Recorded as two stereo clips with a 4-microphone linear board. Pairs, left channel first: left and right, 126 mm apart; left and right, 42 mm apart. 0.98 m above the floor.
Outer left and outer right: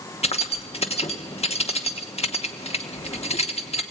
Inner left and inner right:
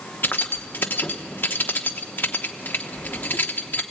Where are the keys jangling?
55° left (ahead or behind), 1.0 m.